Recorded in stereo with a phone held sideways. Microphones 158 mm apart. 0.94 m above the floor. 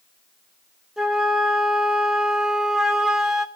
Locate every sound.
1.0 s a flute: 5° right (ahead or behind), 0.7 m